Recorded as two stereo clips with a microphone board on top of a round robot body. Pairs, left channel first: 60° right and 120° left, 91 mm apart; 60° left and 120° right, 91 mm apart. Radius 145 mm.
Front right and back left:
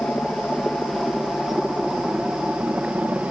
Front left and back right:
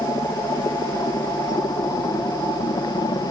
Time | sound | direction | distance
0.0 | a helicopter | 20° left | ?